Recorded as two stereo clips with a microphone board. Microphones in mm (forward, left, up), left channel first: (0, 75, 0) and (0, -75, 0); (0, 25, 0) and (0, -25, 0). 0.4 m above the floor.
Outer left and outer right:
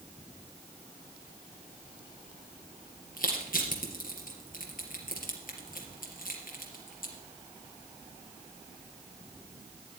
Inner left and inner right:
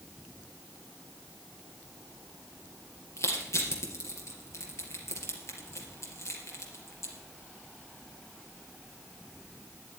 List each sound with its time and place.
3.2 s crushing: 70° left (ahead or behind), 3.5 m